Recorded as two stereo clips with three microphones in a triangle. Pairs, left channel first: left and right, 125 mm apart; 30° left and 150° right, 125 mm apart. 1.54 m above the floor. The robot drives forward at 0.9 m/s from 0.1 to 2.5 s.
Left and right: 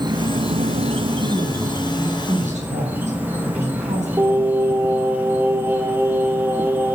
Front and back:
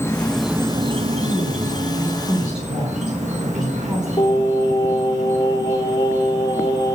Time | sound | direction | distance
0.0 | an insect | 40° right | 0.7 m
1.2 | a woman speaking | 55° right | 5 m
4.2 | singing | 20° right | 2.5 m